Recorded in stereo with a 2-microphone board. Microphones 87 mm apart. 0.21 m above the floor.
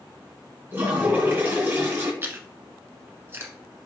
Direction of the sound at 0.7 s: 25° right (ahead or behind).